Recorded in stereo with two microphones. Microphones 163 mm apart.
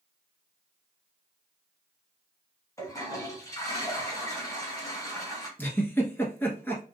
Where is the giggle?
10° left (ahead or behind), 1.1 m.